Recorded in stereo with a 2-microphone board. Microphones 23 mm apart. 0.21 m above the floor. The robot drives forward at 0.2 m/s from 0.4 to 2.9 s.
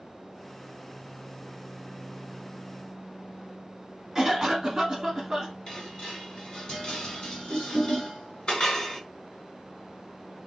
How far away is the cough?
About 1.1 m.